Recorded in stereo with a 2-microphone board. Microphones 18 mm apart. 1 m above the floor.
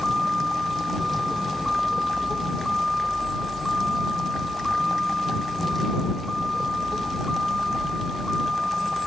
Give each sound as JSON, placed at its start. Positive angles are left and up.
{"t": 0.0, "sound": "a vehicle", "side_deg": 0}